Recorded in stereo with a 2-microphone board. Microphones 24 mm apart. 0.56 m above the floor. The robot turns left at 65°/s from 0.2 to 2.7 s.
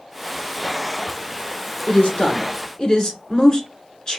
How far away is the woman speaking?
About 1.8 m.